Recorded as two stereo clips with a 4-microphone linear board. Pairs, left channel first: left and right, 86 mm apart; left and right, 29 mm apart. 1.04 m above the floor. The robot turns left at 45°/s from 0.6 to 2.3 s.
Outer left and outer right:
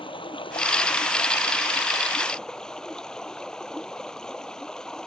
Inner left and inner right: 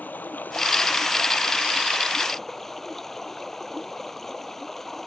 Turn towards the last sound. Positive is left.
turn(degrees=10)